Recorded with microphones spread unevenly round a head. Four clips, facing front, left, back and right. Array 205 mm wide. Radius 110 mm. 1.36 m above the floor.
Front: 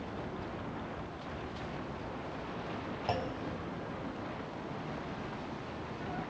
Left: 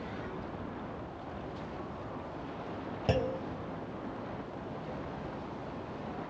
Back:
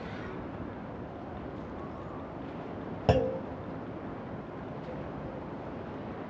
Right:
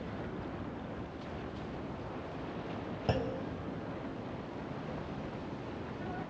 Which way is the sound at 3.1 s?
155° left.